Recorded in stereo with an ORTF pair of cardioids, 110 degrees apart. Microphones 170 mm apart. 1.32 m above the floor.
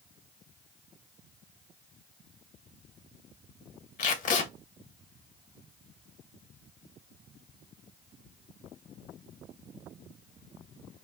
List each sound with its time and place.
4.0 s tape being pulled: 50° left, 1.2 m